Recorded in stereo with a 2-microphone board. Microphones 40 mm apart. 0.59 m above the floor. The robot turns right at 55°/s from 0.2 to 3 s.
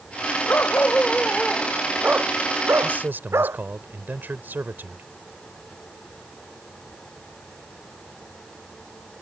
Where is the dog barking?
125° left; by 3.6 s 95° right.